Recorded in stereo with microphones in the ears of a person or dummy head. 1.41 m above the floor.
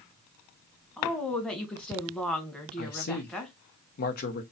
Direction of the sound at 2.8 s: 45° left (ahead or behind).